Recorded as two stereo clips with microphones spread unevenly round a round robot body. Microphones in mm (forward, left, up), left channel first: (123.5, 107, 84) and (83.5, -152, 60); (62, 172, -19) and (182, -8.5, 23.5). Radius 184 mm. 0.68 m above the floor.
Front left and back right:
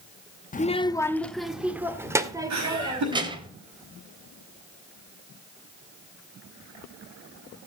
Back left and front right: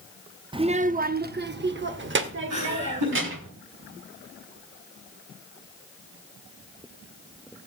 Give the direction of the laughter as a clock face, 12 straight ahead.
3 o'clock.